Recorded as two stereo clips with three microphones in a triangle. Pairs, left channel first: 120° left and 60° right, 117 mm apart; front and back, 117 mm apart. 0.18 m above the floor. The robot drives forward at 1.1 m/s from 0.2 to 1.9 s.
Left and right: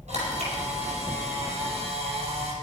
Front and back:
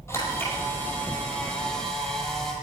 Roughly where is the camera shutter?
Right.